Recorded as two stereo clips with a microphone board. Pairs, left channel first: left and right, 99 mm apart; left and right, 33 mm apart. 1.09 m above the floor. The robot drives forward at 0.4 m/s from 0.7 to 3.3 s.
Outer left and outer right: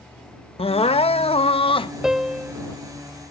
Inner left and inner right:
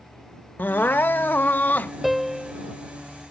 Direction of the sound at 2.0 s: 5° right (ahead or behind).